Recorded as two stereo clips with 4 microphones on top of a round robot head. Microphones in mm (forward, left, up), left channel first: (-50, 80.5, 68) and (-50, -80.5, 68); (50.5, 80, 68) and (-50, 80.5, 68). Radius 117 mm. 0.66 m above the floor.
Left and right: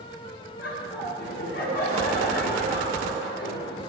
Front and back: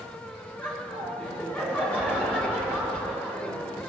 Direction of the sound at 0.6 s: 70° left.